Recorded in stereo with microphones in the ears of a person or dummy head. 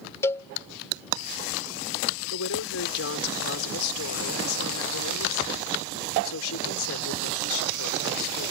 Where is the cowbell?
15° left (ahead or behind).